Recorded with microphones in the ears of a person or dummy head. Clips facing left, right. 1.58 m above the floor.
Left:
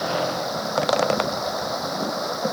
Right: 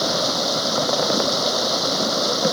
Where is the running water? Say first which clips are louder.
Right 2 dB; 50° right (ahead or behind).